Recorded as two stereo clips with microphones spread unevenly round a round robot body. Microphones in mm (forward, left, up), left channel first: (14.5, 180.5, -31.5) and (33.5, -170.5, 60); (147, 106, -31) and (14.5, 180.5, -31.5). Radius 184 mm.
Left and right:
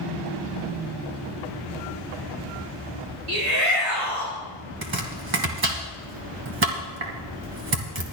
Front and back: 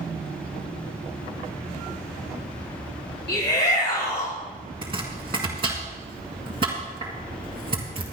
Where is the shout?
45° right, 5 m.